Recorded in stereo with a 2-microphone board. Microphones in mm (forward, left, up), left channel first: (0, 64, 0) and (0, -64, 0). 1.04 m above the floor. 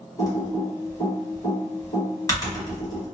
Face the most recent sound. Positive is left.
turn(degrees=25)  # may be behind; listen again after turning